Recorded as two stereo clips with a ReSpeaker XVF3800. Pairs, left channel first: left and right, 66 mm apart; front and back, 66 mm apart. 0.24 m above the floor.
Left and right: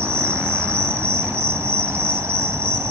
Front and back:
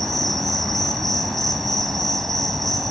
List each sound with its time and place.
0.0 s an insect: 85° right, 1.6 m